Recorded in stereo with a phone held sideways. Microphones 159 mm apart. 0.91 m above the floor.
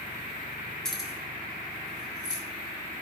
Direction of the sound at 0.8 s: 5° left (ahead or behind).